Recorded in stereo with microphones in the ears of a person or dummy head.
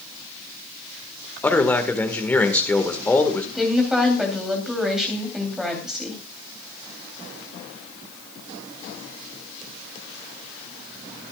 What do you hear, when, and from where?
1.4 s a man speaking: 10° left (ahead or behind), 1.8 m
3.5 s a woman speaking: centre (ahead or behind), 3.5 m